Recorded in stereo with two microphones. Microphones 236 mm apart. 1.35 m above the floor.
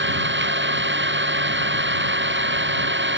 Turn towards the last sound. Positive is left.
turn(degrees=-50)  # may be behind; listen again after turning